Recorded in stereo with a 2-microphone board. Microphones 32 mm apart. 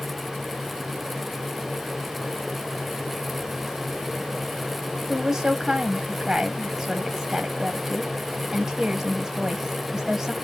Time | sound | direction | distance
5.1 | a woman speaking | 15° right (ahead or behind) | 1.5 m